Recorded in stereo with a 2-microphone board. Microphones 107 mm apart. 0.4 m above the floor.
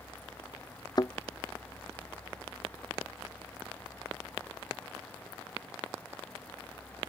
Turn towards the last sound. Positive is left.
turn(degrees=40)  # may be behind; listen again after turning